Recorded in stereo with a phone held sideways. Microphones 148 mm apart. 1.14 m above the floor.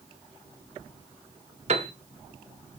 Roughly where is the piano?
Right.